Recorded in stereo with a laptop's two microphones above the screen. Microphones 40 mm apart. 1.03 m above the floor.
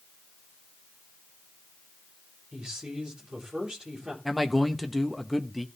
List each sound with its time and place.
2.5 s a man speaking: 20° right (ahead or behind), 3 m
4.2 s a man speaking: centre (ahead or behind), 1.0 m